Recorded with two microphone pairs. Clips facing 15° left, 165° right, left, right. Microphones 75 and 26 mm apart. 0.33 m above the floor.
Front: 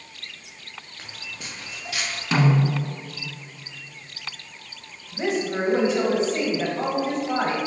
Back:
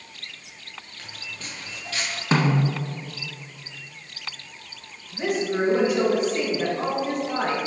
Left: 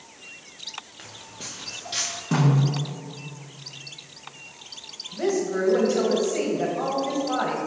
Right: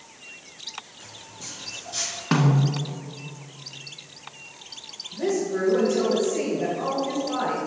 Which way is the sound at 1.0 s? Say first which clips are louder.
Even, left 1 dB; 85° left.